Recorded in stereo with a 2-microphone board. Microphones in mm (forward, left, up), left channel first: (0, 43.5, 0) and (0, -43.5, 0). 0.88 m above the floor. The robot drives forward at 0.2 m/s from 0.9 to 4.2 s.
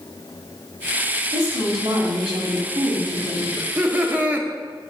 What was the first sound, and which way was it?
A woman speaking, 70° right (ahead or behind).